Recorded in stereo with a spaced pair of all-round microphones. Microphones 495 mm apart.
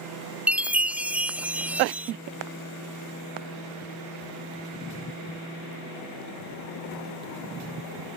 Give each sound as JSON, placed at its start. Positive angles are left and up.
{"t": 0.5, "sound": "a chime", "side_deg": -5}